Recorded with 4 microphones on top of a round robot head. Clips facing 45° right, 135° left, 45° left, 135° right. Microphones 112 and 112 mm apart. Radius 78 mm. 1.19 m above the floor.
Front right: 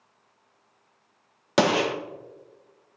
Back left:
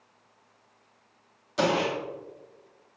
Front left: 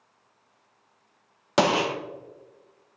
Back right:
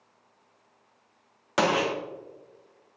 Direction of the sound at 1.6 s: 25° right.